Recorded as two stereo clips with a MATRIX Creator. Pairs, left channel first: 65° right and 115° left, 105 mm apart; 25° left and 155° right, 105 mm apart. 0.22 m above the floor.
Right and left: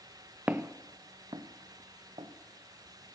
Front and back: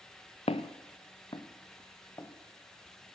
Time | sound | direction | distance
0.5 | footsteps | 40° left | 0.9 m